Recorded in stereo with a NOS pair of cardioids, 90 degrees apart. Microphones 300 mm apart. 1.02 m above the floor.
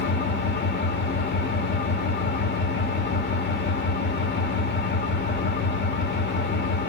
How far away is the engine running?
About 1.8 m.